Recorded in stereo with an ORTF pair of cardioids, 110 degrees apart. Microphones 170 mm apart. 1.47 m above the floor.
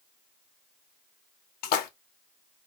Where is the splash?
65° left, 0.7 m.